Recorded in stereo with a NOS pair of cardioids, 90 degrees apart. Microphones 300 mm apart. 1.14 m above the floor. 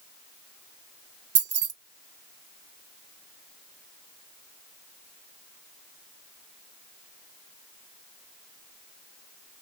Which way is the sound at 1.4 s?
35° right.